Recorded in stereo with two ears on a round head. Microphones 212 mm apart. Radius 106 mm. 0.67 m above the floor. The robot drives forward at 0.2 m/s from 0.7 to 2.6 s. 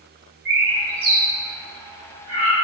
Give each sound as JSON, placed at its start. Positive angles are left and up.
{"t": 0.5, "sound": "a bird", "side_deg": -45, "distance_m": 1.7}